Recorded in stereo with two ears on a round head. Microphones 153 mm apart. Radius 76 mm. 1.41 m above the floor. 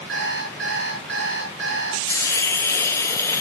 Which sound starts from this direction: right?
An alarm clock, at 0.1 s.